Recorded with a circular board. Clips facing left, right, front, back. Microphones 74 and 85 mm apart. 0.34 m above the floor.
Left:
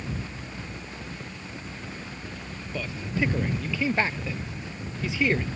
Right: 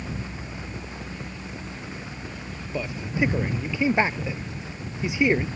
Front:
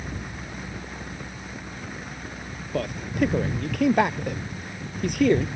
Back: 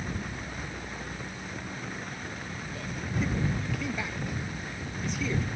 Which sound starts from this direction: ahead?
A man speaking, at 2.7 s.